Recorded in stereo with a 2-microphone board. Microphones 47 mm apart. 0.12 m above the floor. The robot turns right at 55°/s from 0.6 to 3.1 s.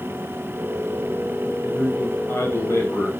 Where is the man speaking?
25° left, 7.5 m; by 3.1 s 105° left, 7.5 m.